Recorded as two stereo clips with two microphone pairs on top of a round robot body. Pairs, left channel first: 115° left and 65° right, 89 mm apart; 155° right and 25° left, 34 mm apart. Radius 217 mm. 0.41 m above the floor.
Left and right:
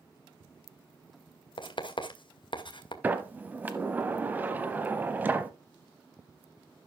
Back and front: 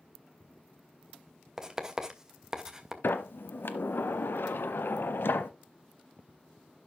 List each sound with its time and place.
1.6 s writing: 100° left, 2.0 m
3.0 s a sliding door: 140° right, 0.8 m